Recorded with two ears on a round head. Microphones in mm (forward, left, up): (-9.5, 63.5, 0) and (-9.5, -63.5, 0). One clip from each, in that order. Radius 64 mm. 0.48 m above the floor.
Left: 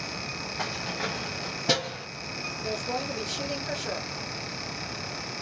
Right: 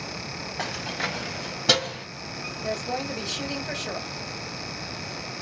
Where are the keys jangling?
20° right (ahead or behind), 1.9 m; by 2.1 s 40° right (ahead or behind), 2.5 m.